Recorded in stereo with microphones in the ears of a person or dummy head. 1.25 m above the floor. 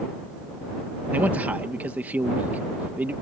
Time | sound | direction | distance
1.1 | a man speaking | 10° right (ahead or behind) | ?